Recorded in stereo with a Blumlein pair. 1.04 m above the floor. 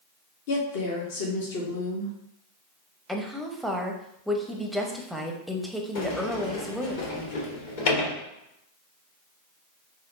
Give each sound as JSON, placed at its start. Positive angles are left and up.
{"t": 0.5, "sound": "a woman speaking", "azimuth_deg": 50, "distance_m": 1.1}
{"t": 3.1, "sound": "a woman speaking", "azimuth_deg": 0, "distance_m": 0.8}
{"t": 6.0, "sound": "a sliding door", "azimuth_deg": 50, "distance_m": 1.6}